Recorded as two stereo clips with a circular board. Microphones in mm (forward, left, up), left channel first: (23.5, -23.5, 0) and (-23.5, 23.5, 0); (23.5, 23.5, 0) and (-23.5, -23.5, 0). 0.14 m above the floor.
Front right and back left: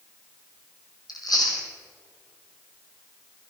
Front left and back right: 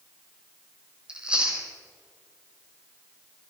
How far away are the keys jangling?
No keys jangling in this recording.